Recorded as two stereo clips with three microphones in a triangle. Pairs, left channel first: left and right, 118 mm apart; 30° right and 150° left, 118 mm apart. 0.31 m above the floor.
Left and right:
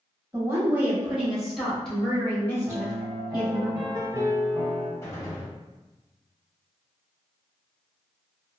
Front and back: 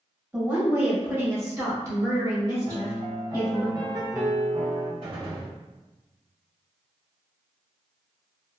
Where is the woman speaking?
140° right, 1.4 m; by 3.7 s 110° left, 1.5 m.